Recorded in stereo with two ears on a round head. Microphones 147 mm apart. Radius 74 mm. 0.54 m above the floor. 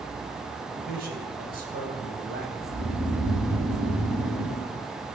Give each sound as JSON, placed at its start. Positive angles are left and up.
{"t": 0.7, "sound": "a man speaking", "side_deg": -60, "distance_m": 3.5}
{"t": 2.6, "sound": "snoring", "side_deg": -55, "distance_m": 6.0}